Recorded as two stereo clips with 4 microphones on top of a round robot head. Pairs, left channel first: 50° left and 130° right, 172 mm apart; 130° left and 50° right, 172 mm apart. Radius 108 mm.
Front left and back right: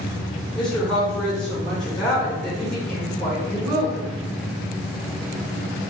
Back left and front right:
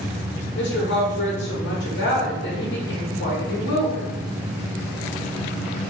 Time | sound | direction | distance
0.6 | a woman speaking | 135° left | 1.6 m